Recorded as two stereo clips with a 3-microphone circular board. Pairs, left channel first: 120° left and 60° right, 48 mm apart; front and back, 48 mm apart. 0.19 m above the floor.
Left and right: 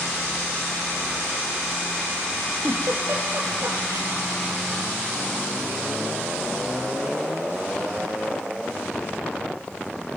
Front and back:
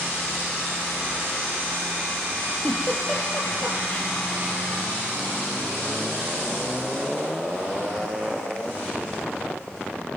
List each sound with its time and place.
2.6 s a giggle: 60° right, 4 m